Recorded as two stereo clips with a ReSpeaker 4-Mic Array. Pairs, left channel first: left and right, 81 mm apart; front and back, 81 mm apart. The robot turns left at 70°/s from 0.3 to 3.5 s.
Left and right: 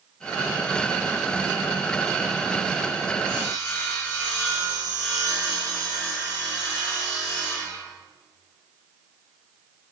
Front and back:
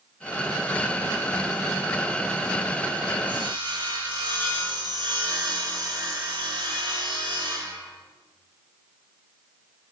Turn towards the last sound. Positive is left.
turn(degrees=155)